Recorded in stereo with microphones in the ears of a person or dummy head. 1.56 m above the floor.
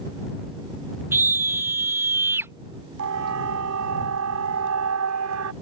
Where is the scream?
15° right (ahead or behind).